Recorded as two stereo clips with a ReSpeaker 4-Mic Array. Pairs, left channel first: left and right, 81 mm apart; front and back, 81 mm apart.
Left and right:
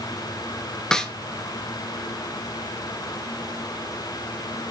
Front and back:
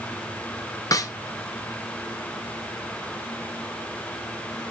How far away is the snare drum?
About 0.6 m.